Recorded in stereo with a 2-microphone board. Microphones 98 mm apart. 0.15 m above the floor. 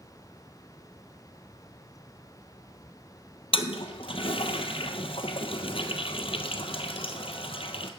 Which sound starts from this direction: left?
A toilet flushing, at 3.5 s.